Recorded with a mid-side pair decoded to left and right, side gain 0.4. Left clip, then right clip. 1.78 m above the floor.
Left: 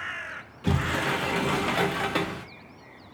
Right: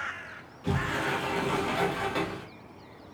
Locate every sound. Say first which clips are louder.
0.6 s a sliding door: left 3 dB; 55° left, 1.0 m